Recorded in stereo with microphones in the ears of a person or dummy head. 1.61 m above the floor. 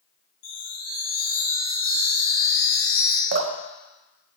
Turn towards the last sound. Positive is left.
turn(degrees=-55)  # may be behind; listen again after turning